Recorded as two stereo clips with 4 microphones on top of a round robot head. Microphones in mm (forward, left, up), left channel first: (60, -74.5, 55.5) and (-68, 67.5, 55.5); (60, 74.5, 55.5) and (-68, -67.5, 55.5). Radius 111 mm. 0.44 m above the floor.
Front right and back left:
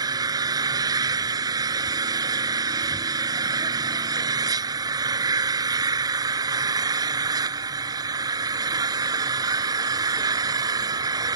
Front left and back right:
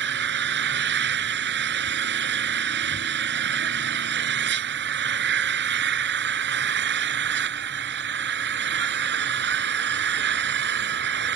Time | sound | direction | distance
0.0 | an engine running | 160° right | ?